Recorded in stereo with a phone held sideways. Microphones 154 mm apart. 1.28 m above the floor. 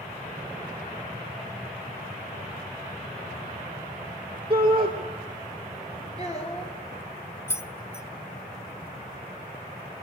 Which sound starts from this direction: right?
A shout, at 4.5 s.